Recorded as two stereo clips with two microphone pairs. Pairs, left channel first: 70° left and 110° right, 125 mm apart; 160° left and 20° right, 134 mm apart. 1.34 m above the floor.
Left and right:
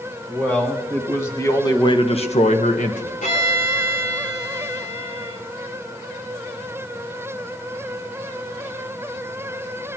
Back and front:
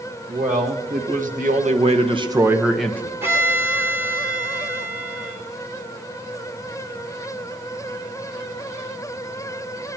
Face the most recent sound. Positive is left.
turn(degrees=55)